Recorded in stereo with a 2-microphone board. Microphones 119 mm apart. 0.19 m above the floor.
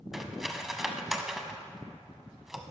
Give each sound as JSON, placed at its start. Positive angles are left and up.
{"t": 0.1, "sound": "cutlery clinking", "side_deg": -5, "distance_m": 0.7}